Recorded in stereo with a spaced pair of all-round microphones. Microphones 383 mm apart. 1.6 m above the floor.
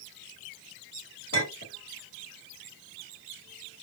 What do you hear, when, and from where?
1.3 s a clink: 35° left (ahead or behind), 1.9 m